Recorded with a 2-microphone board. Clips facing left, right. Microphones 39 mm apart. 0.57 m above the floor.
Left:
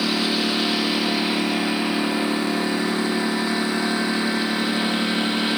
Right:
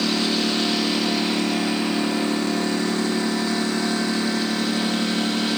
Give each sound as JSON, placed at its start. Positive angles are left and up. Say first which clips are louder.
{"t": 0.0, "sound": "a lawn mower", "louder": "even", "side_deg": 10}